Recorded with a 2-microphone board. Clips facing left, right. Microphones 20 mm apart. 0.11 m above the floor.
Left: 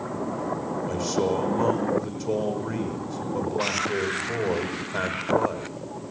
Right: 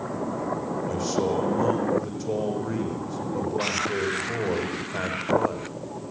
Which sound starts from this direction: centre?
A man speaking, at 0.9 s.